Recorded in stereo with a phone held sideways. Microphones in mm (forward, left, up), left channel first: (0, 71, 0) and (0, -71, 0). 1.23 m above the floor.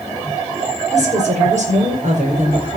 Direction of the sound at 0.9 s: 65° right (ahead or behind).